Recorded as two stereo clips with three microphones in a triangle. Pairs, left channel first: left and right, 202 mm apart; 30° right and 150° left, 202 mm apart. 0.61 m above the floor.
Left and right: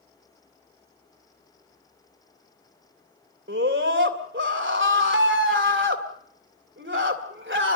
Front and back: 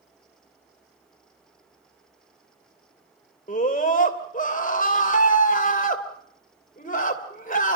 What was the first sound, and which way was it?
A scream, 80° right.